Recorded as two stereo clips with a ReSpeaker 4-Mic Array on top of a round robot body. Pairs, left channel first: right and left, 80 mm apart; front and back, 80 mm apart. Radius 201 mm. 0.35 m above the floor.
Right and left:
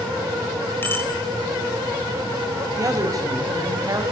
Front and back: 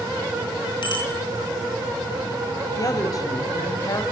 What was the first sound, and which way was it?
A bicycle bell, 25° right.